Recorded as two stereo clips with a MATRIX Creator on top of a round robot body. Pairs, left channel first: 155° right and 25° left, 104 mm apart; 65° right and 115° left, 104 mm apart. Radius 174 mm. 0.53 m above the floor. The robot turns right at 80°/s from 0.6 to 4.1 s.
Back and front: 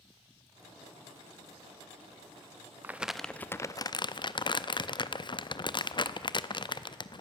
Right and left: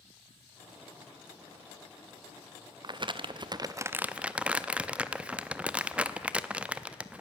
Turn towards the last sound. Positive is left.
turn(degrees=-170)